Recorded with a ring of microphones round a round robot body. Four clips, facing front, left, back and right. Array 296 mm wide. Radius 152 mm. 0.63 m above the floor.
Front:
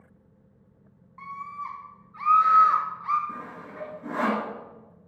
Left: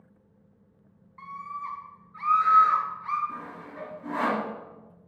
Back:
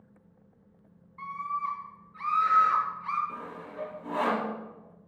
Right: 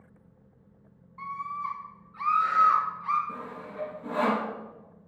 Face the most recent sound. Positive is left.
turn(degrees=-20)